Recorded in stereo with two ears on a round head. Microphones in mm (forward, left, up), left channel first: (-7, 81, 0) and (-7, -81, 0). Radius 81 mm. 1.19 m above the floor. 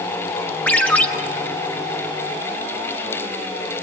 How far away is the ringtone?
About 1.5 m.